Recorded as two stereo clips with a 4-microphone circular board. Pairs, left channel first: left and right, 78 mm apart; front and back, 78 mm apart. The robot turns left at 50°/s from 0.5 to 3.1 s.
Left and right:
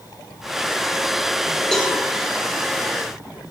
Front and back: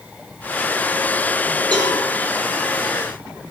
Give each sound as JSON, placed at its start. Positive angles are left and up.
{"t": 1.7, "sound": "a cowbell", "azimuth_deg": 175, "distance_m": 5.0}